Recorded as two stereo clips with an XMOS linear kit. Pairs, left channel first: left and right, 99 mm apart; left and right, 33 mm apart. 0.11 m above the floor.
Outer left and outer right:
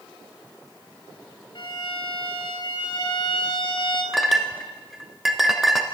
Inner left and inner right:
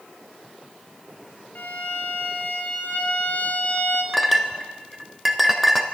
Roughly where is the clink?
Centre.